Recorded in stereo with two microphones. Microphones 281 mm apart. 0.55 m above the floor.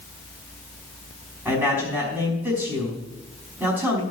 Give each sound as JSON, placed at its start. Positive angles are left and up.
{"t": 1.4, "sound": "a man speaking", "side_deg": -5, "distance_m": 5.0}